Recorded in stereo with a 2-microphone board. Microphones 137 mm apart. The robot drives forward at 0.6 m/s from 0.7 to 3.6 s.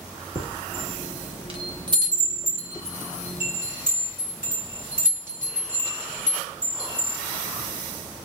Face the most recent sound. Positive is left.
turn(degrees=-15)  # may be behind; listen again after turning